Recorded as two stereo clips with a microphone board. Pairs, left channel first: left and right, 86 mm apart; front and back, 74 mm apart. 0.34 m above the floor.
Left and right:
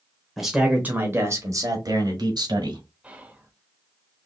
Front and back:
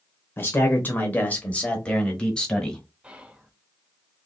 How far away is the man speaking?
About 1.0 m.